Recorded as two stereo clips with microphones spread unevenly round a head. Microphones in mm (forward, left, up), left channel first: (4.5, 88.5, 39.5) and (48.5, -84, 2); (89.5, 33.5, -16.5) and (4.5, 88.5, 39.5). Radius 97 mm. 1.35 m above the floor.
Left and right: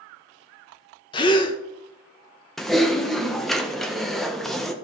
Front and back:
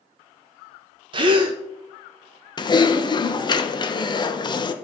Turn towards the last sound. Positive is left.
turn(degrees=15)